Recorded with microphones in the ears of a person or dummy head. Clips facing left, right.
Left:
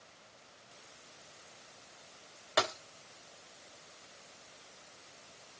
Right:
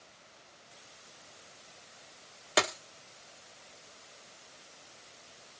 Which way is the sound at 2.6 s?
50° right (ahead or behind).